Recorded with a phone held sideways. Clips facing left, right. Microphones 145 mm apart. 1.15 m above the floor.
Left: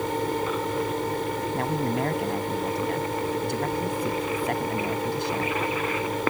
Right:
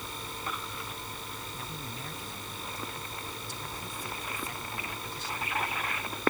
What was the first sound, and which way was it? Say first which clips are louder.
A fan: left 15 dB; 80° left.